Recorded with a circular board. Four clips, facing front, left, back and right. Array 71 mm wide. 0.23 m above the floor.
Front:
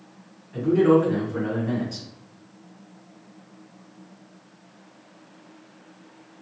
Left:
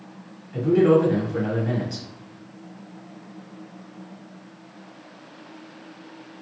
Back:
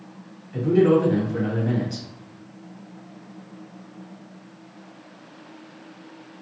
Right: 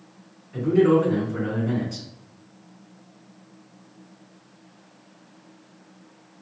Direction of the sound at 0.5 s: 125° left.